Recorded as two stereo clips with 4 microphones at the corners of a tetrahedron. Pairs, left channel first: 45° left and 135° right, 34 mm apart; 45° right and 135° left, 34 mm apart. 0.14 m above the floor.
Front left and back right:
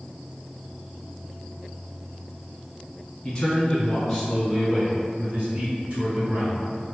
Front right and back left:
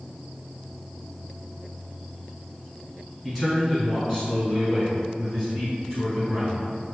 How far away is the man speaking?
About 1.3 m.